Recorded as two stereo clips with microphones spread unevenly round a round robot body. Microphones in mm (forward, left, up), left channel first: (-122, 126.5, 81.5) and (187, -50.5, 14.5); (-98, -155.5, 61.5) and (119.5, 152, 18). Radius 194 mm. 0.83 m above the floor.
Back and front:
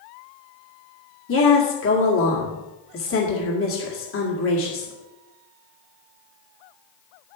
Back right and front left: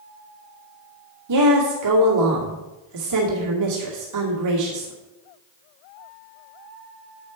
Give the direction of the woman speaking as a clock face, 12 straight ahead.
9 o'clock.